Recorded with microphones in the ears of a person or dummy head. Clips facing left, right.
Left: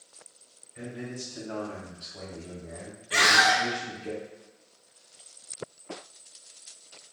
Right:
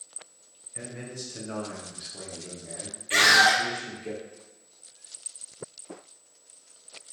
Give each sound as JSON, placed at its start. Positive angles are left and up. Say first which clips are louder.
{"t": 0.8, "sound": "a man speaking", "louder": "left 2 dB", "side_deg": -50, "distance_m": 0.9}
{"t": 3.1, "sound": "a scream", "louder": "right 1 dB", "side_deg": -30, "distance_m": 0.6}